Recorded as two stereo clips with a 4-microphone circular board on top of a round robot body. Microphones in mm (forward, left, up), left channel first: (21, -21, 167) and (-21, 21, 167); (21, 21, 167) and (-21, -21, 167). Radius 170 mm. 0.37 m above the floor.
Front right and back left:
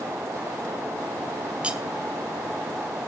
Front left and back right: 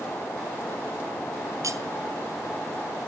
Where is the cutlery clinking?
155° right, 1.3 m.